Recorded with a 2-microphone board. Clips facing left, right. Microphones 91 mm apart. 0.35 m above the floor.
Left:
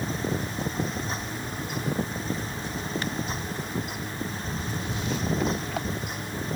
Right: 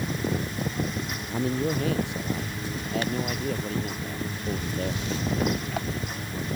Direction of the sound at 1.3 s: 85° right.